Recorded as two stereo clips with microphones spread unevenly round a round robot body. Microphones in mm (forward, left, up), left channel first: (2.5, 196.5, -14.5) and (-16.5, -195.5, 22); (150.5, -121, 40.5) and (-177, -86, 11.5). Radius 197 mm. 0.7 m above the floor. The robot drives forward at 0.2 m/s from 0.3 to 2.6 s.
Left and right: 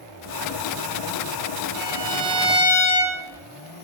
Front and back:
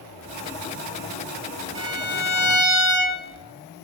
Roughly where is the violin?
Behind right.